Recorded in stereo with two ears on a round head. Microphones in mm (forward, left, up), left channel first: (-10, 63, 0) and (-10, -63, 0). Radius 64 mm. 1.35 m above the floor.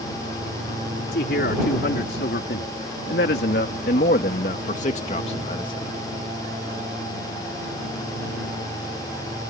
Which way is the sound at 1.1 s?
80° left.